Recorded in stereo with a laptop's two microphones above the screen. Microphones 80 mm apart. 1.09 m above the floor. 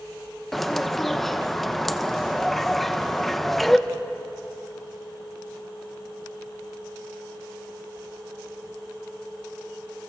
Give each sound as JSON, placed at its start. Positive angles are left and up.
{"t": 0.5, "sound": "a bird", "side_deg": 5, "distance_m": 0.9}